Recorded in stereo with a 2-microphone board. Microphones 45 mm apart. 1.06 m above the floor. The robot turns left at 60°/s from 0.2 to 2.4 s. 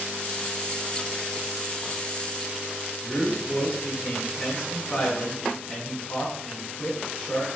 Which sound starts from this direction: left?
A man speaking, at 3.0 s.